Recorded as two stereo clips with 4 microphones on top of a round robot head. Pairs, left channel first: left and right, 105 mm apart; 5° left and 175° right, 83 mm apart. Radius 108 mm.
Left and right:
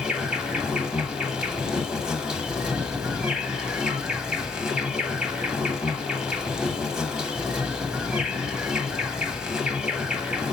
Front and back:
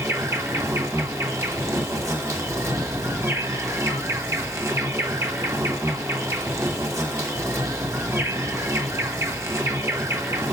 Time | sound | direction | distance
0.0 | an insect | 165° right | 1.5 m